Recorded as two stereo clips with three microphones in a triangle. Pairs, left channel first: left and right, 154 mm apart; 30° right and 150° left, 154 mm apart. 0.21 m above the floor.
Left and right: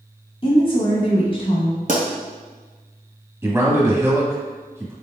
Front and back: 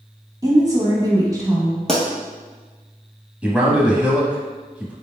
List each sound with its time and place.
0.4 s a woman speaking: 100° left, 1.1 m
1.9 s a pop: 115° right, 1.1 m
3.4 s a man speaking: 140° right, 1.0 m